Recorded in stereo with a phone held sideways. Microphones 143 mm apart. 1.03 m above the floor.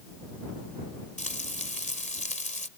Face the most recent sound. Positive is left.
turn(degrees=60)  # may be behind; listen again after turning